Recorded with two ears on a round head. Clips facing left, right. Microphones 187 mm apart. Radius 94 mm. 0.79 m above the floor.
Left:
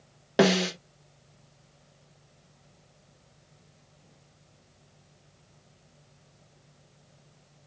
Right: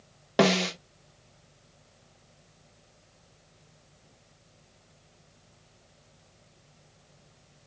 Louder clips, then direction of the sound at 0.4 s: Left 1 dB; 5° left (ahead or behind).